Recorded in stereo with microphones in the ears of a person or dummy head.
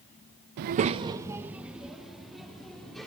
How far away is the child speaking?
About 0.6 m.